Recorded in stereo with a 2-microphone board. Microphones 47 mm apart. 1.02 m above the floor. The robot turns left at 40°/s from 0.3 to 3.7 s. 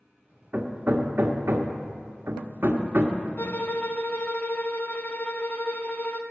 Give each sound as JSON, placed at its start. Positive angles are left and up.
{"t": 0.5, "sound": "hammering", "side_deg": -35, "distance_m": 1.2}
{"t": 3.4, "sound": "a violin", "side_deg": 50, "distance_m": 0.8}